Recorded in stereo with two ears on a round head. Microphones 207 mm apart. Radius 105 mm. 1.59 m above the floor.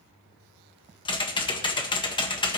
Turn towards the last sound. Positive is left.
turn(degrees=20)  # may be behind; listen again after turning